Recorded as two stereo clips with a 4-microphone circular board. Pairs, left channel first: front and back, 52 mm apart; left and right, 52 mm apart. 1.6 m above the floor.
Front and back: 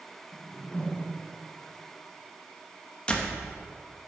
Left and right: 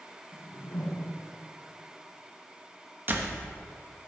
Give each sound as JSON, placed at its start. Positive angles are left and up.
{"t": 0.3, "sound": "a whoosh", "azimuth_deg": 65, "distance_m": 1.7}
{"t": 3.1, "sound": "a door slam", "azimuth_deg": -60, "distance_m": 1.1}